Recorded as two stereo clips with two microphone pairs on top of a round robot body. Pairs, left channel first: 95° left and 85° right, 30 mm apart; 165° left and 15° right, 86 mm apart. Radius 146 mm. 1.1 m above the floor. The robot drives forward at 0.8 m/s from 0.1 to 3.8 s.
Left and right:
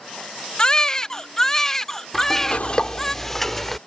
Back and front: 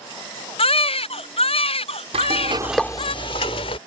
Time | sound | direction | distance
0.6 | a baby crying | 160° left | ?
2.1 | frying | 5° right | ?